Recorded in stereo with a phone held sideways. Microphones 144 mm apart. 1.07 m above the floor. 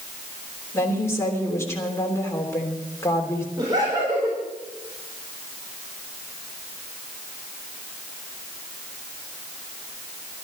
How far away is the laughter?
About 4 m.